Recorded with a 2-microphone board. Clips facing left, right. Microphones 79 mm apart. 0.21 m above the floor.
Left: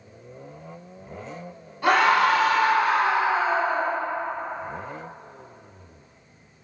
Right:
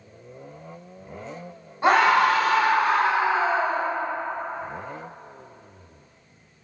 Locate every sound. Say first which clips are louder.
1.8 s a scream: right 1 dB; 30° right (ahead or behind), 1.4 m; by 3.9 s 65° right (ahead or behind), 2.5 m